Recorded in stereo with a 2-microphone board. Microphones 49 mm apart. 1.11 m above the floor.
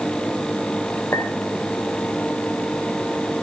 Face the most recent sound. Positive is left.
turn(degrees=80)